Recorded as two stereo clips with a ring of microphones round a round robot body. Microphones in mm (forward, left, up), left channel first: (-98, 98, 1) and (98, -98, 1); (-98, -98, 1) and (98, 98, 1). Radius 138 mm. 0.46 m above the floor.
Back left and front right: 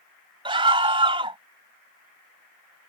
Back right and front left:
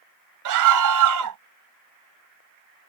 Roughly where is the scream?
Ahead left.